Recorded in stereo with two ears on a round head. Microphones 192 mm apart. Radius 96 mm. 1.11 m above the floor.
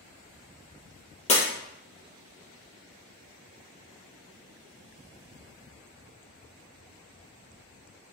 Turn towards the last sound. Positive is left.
turn(degrees=35)  # may be behind; listen again after turning